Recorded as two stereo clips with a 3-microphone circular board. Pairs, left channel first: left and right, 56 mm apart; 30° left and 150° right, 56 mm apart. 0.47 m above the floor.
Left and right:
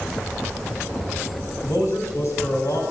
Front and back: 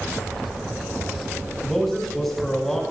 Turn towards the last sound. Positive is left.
turn(degrees=120)